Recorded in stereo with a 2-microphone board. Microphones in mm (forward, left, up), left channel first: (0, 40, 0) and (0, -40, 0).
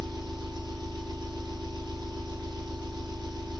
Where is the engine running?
60° right (ahead or behind), 1.1 m.